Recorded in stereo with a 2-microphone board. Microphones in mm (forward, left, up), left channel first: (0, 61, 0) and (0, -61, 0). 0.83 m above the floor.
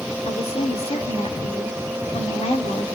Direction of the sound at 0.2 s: 55° left (ahead or behind).